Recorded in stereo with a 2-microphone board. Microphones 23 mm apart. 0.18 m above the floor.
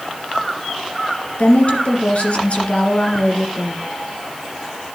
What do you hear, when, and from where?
1.4 s a woman speaking: 60° left (ahead or behind), 2.0 m